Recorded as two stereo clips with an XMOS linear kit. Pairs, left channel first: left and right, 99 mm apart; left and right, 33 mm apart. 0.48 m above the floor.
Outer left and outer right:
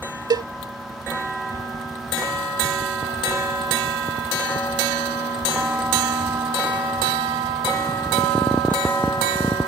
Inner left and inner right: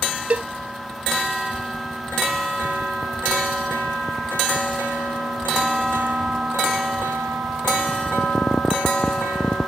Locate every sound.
0.3 s a cowbell: 45° right (ahead or behind)